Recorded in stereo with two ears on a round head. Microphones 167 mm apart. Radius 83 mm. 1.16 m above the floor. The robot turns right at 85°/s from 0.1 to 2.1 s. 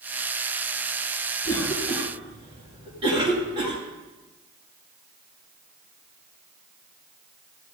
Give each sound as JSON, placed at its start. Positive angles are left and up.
{"t": 1.4, "sound": "a cough", "side_deg": 25, "distance_m": 2.0}